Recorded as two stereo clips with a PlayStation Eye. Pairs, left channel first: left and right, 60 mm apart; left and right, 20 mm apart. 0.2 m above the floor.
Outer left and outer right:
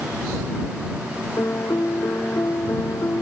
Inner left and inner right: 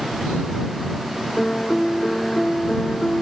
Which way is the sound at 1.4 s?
55° left (ahead or behind).